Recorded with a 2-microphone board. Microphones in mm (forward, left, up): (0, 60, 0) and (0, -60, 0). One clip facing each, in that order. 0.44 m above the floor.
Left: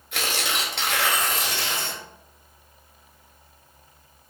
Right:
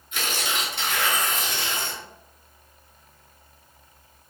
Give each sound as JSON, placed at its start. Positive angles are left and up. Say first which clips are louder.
{"t": 0.1, "sound": "tearing paper", "louder": "left 1 dB", "side_deg": 70, "distance_m": 1.0}